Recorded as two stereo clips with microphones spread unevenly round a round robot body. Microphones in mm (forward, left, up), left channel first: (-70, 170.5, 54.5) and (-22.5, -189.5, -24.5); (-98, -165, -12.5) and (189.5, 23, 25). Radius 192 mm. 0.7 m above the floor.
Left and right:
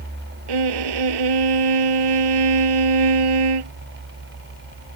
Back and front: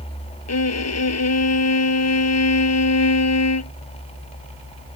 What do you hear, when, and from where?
0.5 s a violin: 100° right